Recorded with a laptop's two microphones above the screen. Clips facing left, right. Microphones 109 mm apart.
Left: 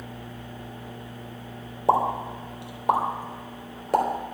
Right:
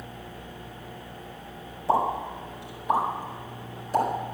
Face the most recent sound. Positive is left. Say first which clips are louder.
# left 2 dB
turn(degrees=85)